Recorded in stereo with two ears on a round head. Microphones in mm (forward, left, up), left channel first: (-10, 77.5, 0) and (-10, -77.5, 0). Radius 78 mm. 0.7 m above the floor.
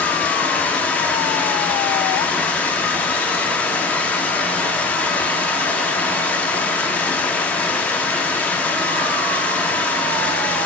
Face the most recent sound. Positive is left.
turn(degrees=10)  # may be behind; listen again after turning